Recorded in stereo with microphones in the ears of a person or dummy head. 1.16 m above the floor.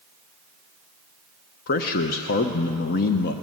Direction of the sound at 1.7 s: 50° left (ahead or behind).